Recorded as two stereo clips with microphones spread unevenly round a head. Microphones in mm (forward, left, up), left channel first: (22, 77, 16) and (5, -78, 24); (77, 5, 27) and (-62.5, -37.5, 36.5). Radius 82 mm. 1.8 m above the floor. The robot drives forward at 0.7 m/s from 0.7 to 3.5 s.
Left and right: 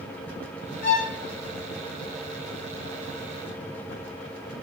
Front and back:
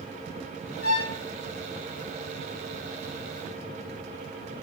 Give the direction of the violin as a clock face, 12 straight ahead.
11 o'clock.